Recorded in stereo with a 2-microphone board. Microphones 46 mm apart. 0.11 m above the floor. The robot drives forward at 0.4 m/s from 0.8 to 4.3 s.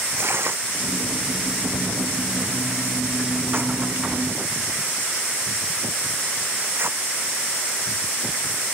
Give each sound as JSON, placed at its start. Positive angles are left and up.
{"t": 0.2, "sound": "tearing paper", "side_deg": -65}